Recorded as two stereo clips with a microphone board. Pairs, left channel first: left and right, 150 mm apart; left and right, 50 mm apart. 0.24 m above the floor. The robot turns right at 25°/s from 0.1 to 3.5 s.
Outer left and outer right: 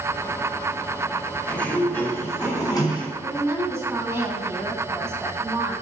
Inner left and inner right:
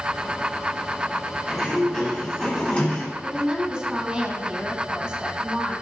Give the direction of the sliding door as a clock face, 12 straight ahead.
12 o'clock.